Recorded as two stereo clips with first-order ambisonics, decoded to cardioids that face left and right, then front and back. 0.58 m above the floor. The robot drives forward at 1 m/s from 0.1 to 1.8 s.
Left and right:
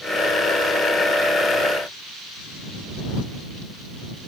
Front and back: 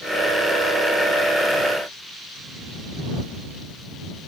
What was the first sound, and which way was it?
Only background noise.